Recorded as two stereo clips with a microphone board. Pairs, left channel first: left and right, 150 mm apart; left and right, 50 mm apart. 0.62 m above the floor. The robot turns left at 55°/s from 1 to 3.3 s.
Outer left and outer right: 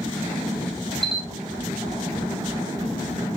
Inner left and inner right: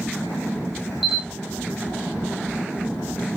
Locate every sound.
1.0 s a camera shutter: 5° left (ahead or behind), 1.8 m; by 1.3 s 5° right (ahead or behind), 1.8 m